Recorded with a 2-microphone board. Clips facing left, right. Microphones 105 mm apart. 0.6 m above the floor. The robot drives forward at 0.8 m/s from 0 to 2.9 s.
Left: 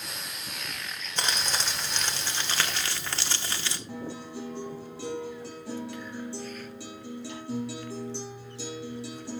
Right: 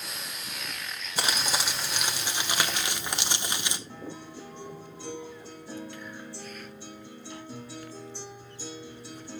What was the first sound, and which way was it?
Crumpling, 10° right (ahead or behind).